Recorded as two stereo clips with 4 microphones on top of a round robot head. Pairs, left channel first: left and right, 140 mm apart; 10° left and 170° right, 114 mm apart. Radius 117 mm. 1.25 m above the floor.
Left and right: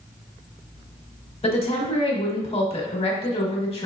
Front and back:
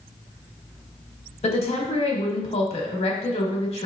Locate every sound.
1.4 s a woman speaking: 40° left, 1.3 m